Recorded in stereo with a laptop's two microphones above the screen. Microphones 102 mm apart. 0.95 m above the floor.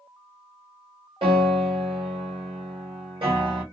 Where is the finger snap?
I don't hear a finger snap.